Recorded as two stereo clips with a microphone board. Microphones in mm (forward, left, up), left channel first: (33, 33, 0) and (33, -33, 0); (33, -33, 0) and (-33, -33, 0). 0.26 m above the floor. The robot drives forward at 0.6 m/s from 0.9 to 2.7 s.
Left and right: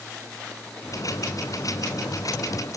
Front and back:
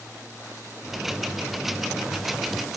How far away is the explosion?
I don't hear an explosion.